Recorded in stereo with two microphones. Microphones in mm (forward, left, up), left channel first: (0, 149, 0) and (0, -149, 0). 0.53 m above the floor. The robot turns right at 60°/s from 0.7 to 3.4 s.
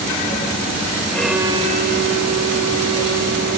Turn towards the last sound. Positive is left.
turn(degrees=-50)